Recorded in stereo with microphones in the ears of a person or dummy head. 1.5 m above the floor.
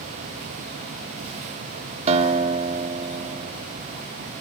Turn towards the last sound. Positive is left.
turn(degrees=-35)  # may be behind; listen again after turning